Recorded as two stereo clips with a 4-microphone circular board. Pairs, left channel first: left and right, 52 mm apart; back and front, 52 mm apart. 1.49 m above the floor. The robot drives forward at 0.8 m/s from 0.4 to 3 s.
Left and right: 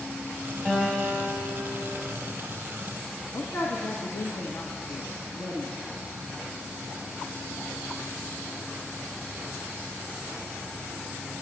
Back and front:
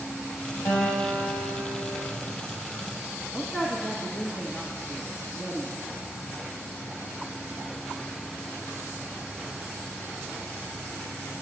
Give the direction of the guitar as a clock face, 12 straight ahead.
6 o'clock.